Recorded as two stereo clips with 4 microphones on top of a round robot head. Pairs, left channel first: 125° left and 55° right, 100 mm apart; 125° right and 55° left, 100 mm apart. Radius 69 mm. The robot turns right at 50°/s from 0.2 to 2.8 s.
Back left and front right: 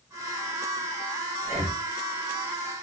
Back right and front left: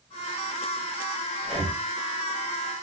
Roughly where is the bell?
No bell in this recording.